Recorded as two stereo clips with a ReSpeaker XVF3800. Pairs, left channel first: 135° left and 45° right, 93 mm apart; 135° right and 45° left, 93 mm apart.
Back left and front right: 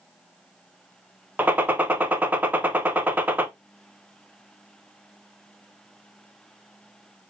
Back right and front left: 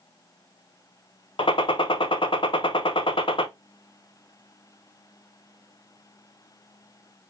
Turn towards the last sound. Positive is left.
turn(degrees=-115)